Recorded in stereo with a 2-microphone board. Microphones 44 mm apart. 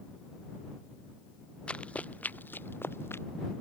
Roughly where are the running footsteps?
Left.